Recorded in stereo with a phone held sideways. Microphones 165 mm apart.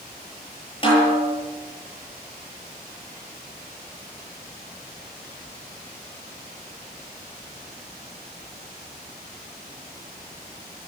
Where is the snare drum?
35° left (ahead or behind), 9.5 m.